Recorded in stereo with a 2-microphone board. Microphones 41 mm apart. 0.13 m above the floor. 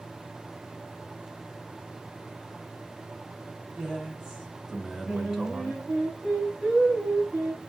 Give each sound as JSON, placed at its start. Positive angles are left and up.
{"t": 3.7, "sound": "a man speaking", "side_deg": -15, "distance_m": 1.4}
{"t": 5.1, "sound": "singing", "side_deg": -15, "distance_m": 2.5}